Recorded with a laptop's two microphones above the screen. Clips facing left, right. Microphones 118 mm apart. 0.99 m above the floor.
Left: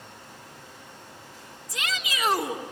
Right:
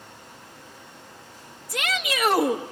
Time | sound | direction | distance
1.7 | a shout | 60° right (ahead or behind) | 1.6 m